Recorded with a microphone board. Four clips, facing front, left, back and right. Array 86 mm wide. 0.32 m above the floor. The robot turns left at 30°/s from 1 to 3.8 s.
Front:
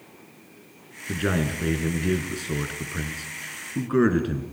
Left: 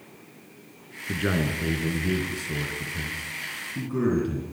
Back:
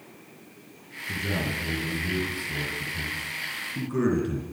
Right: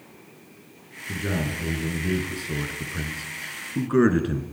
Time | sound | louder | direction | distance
1.1 | a man speaking | left 2 dB, front 5 dB | 30° left | 3.5 m